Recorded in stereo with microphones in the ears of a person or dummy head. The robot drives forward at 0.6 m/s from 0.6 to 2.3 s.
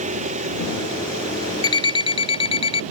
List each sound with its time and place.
0.0 s an engine running: 45° right (ahead or behind); by 2.9 s 40° right (ahead or behind)
1.6 s an alarm clock: 25° left (ahead or behind); by 2.8 s 30° left (ahead or behind)